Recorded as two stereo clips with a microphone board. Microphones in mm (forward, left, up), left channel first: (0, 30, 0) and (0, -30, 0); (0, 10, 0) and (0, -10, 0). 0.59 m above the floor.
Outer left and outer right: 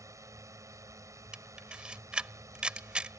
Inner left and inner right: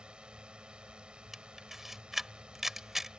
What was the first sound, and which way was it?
A drone, 60° right (ahead or behind).